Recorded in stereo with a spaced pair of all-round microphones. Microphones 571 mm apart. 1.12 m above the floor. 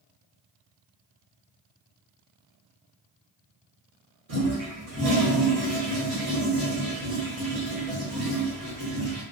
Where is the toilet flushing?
75° right (ahead or behind), 1.2 m.